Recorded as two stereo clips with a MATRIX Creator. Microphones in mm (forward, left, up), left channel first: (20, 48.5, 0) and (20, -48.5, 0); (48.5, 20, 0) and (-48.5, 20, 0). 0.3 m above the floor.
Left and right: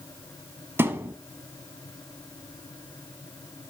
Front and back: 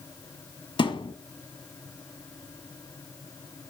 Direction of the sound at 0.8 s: 25° right.